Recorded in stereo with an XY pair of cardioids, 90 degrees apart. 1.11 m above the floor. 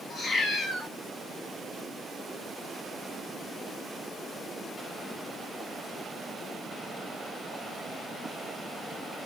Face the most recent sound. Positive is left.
turn(degrees=55)